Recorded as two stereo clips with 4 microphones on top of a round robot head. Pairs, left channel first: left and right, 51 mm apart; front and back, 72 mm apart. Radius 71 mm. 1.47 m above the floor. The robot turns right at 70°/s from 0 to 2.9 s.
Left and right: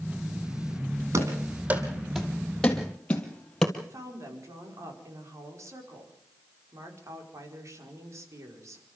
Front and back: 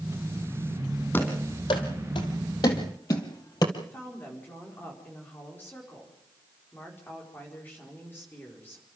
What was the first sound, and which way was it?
Running footsteps, 70° right.